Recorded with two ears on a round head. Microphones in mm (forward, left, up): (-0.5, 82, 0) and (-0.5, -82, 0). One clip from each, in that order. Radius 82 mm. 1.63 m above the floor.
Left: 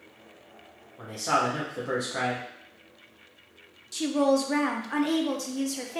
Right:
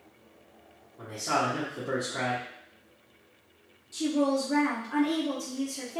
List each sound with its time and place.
1.0 s a man speaking: 25° left (ahead or behind), 0.9 m
3.9 s a woman speaking: 60° left (ahead or behind), 0.6 m